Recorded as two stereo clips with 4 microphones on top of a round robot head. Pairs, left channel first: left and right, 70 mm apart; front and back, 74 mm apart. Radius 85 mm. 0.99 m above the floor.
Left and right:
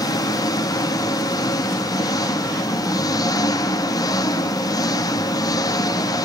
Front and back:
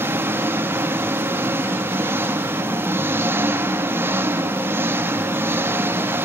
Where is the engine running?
120° left, 1.0 m.